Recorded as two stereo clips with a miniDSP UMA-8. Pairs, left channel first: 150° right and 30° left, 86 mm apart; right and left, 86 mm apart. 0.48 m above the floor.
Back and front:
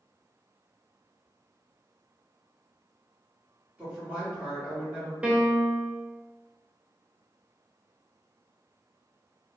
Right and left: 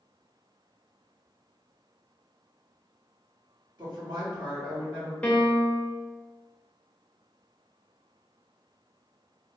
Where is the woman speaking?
95° left, 1.4 m.